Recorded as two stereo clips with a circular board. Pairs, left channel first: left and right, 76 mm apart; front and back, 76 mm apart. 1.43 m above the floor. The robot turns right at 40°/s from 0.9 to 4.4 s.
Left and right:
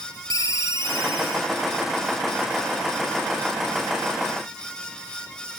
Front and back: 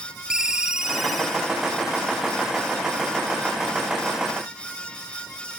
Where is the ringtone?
100° right, 2 m; by 1.5 s 75° right, 2 m.